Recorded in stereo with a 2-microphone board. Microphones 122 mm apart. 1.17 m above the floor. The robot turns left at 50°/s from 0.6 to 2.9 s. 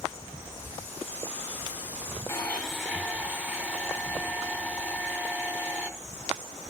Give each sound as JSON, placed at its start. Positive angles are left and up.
{"t": 2.3, "sound": "a blender", "azimuth_deg": 20, "distance_m": 2.5}